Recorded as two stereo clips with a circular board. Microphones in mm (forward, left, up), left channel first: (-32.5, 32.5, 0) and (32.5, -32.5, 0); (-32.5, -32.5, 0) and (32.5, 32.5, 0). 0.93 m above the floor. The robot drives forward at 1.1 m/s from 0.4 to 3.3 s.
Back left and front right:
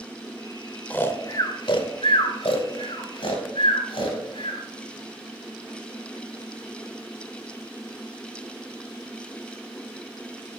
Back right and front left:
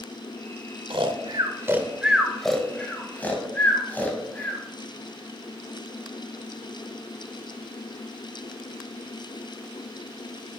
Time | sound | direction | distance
0.9 | snoring | 60° left | 1.2 m